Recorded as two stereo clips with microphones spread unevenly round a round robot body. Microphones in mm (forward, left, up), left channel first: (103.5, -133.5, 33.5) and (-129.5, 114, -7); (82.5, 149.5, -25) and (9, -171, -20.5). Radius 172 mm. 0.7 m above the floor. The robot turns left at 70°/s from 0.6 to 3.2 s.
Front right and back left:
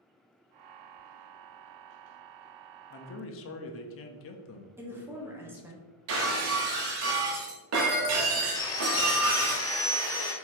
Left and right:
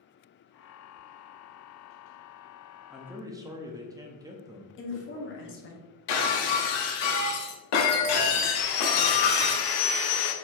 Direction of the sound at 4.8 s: 65° left.